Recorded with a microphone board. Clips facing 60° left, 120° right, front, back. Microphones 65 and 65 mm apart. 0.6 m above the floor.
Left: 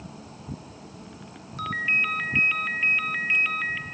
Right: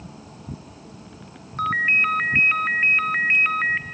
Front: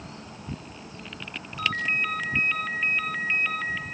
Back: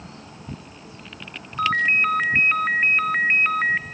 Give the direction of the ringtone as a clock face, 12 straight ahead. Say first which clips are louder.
Right 6 dB, back 8 dB; 5 o'clock.